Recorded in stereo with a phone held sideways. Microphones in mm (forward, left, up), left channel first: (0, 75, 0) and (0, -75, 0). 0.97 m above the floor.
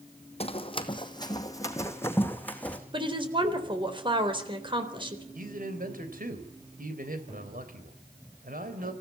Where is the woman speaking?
35° right (ahead or behind), 4 m.